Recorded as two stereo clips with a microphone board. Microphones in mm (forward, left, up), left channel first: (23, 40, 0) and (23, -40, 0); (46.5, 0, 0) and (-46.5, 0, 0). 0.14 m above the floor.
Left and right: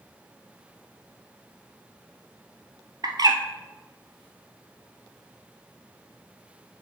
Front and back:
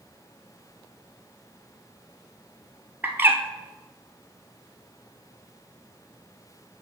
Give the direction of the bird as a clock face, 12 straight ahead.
4 o'clock.